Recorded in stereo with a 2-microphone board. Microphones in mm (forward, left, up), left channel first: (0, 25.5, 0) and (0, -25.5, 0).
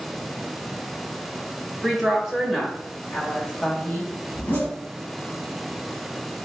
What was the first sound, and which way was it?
A woman speaking, 5° right (ahead or behind).